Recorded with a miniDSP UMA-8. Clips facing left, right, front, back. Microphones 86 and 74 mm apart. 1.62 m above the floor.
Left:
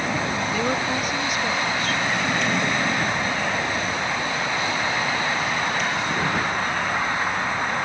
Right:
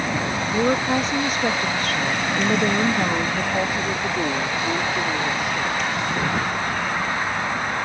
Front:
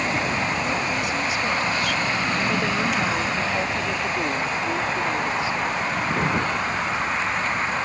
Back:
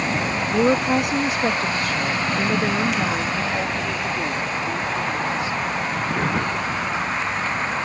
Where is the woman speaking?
160° right; by 5.9 s 60° right.